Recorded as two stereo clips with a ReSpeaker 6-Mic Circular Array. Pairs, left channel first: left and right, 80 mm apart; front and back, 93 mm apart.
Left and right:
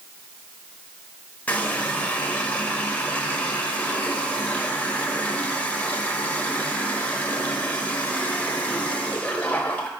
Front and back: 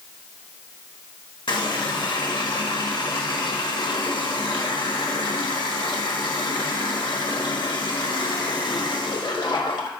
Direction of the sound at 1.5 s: 20° left.